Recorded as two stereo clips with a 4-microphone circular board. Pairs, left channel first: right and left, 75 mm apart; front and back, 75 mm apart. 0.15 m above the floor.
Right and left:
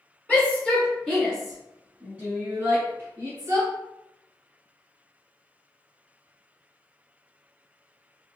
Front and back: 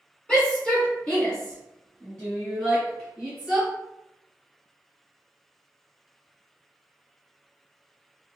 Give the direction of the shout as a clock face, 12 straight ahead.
2 o'clock.